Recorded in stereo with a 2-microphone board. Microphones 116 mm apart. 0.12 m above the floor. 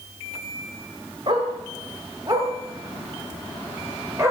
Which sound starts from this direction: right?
A dog barking, at 1.3 s.